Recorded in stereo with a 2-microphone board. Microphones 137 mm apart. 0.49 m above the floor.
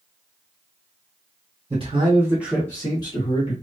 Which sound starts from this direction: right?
A man speaking, at 1.7 s.